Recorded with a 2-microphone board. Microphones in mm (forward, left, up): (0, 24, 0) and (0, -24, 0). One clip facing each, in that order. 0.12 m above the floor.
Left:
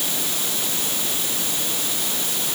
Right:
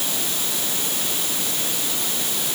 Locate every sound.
Only background noise.